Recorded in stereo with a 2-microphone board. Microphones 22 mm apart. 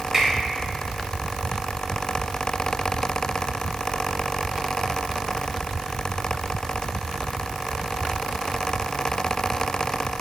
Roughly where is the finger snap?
Right.